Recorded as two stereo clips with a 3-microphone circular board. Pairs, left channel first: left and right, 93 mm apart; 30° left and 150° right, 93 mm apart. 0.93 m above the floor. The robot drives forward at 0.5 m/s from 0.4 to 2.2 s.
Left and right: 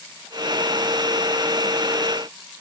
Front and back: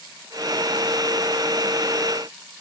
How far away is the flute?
I don't hear a flute.